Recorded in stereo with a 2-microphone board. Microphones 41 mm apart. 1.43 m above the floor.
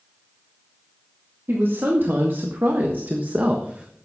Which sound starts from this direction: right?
A woman speaking, at 1.5 s.